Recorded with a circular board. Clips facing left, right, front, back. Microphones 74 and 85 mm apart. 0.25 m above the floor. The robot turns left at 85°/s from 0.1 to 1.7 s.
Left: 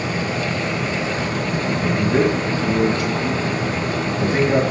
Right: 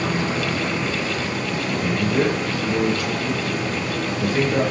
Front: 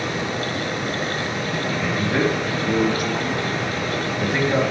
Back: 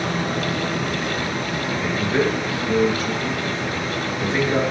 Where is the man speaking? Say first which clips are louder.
Left 3 dB, back 1 dB; 75° left, 4.5 m.